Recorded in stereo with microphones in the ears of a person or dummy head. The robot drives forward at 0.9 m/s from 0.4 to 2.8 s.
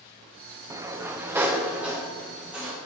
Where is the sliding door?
15° right (ahead or behind), 0.6 m; by 2.8 s 5° right (ahead or behind), 2.5 m.